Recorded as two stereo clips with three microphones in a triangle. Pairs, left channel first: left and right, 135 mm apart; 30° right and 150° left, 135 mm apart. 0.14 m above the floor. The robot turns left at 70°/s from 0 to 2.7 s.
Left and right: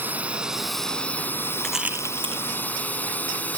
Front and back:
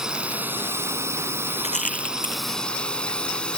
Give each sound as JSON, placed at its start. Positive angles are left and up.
{"t": 0.0, "sound": "a drone", "azimuth_deg": -130}
{"t": 1.6, "sound": "a rattle", "azimuth_deg": 5}